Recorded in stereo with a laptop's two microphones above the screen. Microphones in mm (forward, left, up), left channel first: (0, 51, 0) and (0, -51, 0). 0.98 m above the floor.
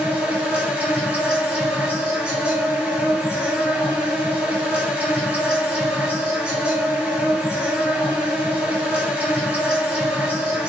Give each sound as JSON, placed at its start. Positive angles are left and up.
{"t": 0.0, "sound": "an insect", "side_deg": -10, "distance_m": 2.0}